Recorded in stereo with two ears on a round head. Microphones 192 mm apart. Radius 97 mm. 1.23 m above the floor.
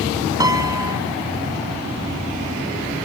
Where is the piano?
15° right (ahead or behind), 1.1 m.